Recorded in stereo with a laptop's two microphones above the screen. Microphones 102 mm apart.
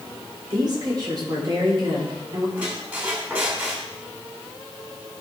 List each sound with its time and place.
0.5 s a woman speaking: 45° right (ahead or behind), 3 m
2.6 s a squeak: 15° right (ahead or behind), 3 m